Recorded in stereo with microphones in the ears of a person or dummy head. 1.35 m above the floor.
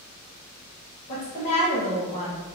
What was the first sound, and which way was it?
A woman speaking, 35° left (ahead or behind).